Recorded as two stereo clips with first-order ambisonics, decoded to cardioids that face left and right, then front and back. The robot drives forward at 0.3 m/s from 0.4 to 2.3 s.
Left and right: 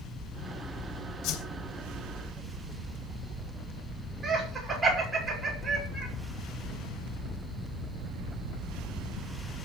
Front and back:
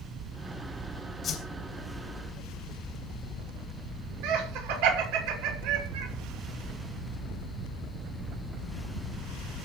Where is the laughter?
175° right, 6.5 m.